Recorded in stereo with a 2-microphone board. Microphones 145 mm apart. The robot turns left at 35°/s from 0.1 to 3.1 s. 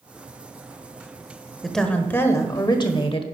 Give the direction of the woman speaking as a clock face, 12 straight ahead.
6 o'clock.